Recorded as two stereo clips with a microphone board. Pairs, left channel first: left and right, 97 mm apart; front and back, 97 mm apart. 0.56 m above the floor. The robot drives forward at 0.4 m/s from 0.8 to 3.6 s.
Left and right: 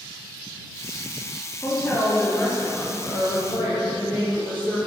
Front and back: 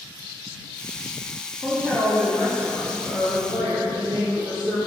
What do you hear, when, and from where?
1.6 s a woman speaking: 115° left, 0.6 m; by 4.8 s 170° left, 1.1 m